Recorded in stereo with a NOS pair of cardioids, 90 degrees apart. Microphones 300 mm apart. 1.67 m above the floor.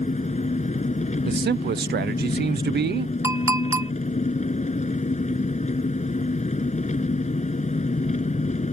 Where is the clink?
10° right.